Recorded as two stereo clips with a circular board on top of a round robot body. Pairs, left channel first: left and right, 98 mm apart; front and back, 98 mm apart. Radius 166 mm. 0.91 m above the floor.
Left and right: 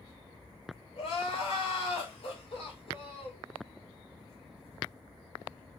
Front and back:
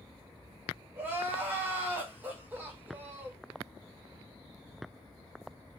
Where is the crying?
115° left, 6.5 m.